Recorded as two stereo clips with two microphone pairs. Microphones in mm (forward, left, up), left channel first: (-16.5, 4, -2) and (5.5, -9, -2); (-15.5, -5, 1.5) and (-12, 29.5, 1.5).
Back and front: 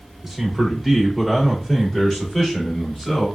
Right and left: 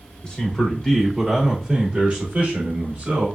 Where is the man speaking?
90° right, 1.1 m; by 3.3 s 70° left, 1.5 m.